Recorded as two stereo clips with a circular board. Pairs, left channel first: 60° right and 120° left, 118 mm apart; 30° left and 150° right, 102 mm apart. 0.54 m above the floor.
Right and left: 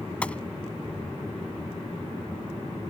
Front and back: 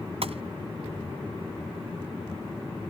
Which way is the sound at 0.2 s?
140° right.